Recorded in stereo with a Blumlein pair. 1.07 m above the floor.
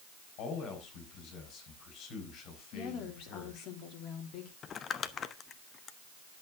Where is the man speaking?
35° left, 5 m.